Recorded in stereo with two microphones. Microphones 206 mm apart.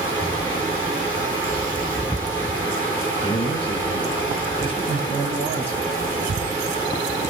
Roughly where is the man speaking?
Left.